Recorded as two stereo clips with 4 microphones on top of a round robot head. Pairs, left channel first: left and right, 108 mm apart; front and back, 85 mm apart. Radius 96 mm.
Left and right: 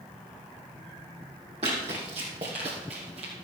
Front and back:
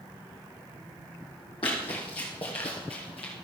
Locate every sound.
1.6 s running footsteps: 45° right, 3 m; by 3.3 s 40° right, 2.5 m